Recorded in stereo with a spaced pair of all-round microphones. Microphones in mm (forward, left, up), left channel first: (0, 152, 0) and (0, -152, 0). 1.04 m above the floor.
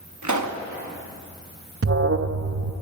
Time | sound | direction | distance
0.2 | a pop | 70° right (ahead or behind) | 1.1 m
1.8 | an alarm | 50° right (ahead or behind) | 0.6 m